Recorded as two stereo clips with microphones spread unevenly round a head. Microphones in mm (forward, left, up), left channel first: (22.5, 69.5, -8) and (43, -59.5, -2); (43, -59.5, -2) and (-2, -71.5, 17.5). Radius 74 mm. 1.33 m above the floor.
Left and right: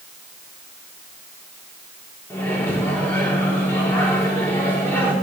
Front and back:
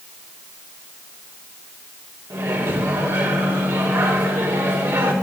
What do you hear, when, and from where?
2.3 s a microwave: 175° left, 2.5 m